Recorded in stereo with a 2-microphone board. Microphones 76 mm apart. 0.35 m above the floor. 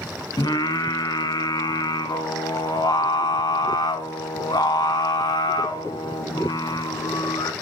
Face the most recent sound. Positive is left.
turn(degrees=65)  # may be behind; listen again after turning